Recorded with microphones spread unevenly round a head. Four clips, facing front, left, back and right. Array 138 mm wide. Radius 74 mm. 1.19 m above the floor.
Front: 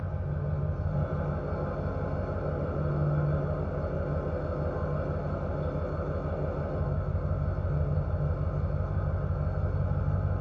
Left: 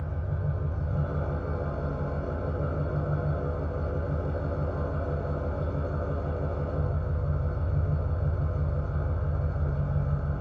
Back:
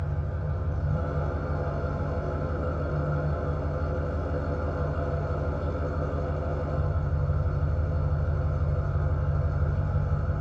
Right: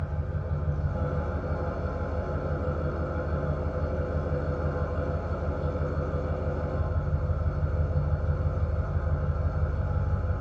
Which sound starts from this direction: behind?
An engine running, at 0.0 s.